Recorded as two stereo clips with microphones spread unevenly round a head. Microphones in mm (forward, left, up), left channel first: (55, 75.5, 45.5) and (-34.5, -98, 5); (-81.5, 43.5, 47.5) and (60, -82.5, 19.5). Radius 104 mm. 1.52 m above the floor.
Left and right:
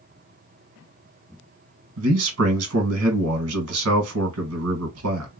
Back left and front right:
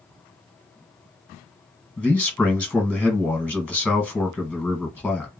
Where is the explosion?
No explosion in this recording.